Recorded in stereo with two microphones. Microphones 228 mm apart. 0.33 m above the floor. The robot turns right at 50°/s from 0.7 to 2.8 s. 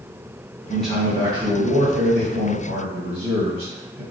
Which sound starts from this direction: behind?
A man speaking, at 0.7 s.